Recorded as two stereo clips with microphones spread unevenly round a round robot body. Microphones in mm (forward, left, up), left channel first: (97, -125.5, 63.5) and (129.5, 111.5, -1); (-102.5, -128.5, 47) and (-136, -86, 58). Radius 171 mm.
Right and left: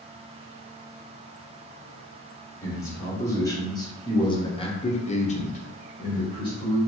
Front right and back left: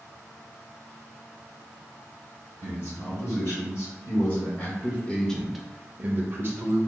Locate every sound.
2.6 s a man speaking: 15° right, 1.7 m; by 6.8 s 175° left, 0.8 m